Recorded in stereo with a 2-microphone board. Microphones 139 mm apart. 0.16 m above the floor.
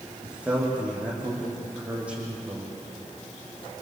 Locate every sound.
0.2 s a man speaking: 10° right (ahead or behind), 8.5 m